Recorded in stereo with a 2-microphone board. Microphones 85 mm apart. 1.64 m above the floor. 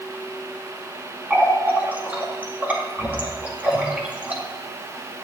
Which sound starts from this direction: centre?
A running tap, at 1.3 s.